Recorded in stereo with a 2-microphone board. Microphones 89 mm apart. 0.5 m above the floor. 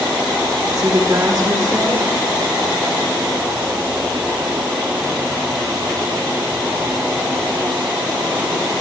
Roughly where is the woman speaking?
Right.